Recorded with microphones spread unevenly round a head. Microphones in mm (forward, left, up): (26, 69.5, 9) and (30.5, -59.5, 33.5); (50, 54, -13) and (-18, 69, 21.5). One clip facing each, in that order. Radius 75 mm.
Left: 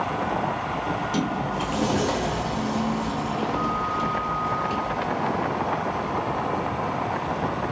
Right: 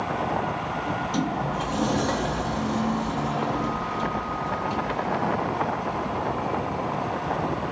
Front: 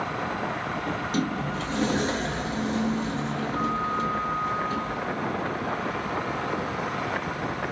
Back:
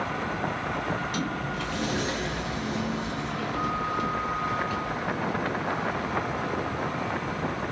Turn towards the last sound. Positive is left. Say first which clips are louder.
# even, front 2 dB
turn(degrees=15)